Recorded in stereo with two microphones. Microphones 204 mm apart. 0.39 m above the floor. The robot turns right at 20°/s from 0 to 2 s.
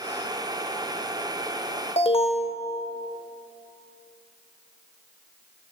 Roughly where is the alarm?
Left.